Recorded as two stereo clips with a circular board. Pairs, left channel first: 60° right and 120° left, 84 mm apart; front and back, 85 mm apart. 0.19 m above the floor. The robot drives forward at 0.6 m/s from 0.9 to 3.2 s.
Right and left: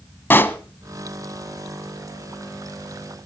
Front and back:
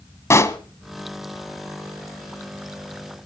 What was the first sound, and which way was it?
A pop, 15° right.